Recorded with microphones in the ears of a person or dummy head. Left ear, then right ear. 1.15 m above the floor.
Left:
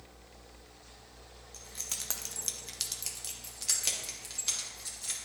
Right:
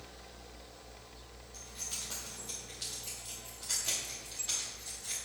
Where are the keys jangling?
25° left (ahead or behind), 0.9 m; by 5.2 s 55° left (ahead or behind), 2.5 m.